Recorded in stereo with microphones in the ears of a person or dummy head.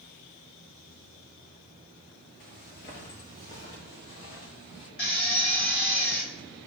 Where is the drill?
45° left (ahead or behind), 3.5 m.